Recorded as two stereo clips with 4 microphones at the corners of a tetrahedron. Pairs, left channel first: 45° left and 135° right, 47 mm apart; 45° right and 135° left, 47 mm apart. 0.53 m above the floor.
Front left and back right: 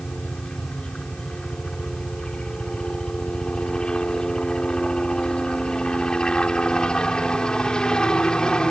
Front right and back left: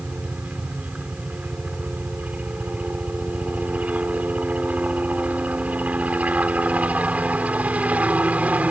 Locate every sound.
0.0 s a helicopter: 105° left